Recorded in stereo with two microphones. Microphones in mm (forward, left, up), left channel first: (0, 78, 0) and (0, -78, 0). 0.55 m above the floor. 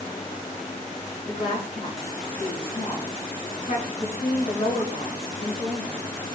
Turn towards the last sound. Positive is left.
turn(degrees=70)  # may be behind; listen again after turning